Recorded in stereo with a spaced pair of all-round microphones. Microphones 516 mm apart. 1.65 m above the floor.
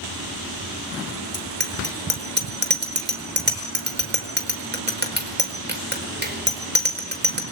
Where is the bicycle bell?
20° right (ahead or behind), 4.5 m.